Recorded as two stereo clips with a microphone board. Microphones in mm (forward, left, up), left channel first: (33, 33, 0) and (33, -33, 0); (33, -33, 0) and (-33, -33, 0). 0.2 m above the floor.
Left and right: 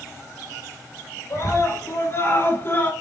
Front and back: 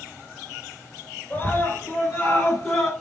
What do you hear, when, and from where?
1.3 s a scream: 70° left, 2.5 m